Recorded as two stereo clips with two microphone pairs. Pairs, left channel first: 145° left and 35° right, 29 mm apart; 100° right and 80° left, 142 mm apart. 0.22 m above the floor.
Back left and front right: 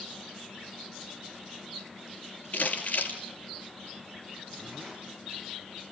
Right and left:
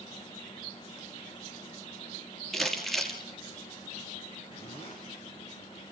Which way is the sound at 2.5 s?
175° left.